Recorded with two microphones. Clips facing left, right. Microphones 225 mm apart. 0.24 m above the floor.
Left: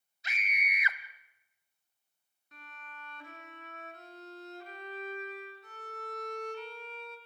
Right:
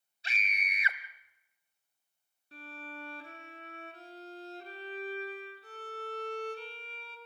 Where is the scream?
30° right (ahead or behind), 1.3 m.